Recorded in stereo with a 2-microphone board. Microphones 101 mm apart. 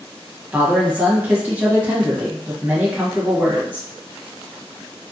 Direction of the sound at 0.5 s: 15° right (ahead or behind).